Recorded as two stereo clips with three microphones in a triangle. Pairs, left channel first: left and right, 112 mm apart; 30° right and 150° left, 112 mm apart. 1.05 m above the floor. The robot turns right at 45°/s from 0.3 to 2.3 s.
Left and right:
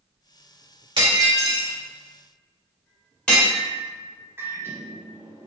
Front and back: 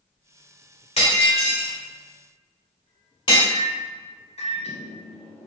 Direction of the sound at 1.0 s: 50° right.